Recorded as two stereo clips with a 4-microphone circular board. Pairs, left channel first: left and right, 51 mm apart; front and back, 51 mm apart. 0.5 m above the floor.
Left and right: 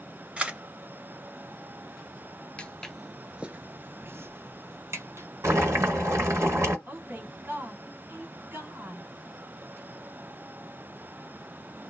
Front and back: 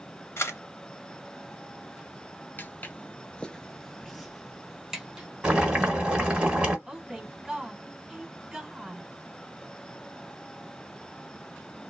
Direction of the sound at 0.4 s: 25° right.